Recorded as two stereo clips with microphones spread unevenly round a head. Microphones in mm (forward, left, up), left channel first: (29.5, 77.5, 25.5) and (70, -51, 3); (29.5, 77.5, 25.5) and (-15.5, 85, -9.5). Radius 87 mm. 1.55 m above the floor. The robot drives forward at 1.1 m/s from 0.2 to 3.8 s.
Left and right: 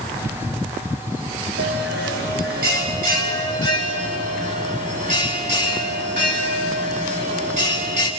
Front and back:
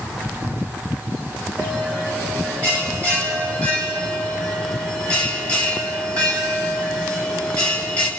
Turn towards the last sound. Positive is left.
turn(degrees=-125)